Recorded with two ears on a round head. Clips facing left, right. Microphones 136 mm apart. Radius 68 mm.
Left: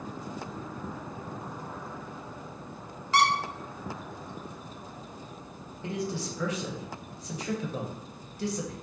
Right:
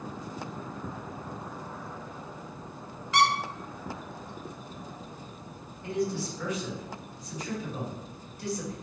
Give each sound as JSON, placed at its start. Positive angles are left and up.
{"t": 3.1, "sound": "a squeak", "side_deg": 30, "distance_m": 0.6}
{"t": 5.8, "sound": "a man speaking", "side_deg": 60, "distance_m": 1.0}